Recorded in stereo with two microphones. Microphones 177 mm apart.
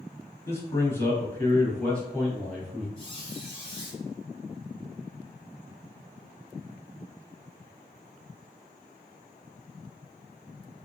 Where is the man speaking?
15° left (ahead or behind), 1.3 m; by 2.9 s centre (ahead or behind), 1.2 m.